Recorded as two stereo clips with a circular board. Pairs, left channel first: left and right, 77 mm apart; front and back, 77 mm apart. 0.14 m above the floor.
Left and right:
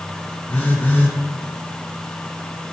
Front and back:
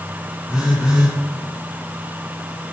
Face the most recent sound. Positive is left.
turn(degrees=115)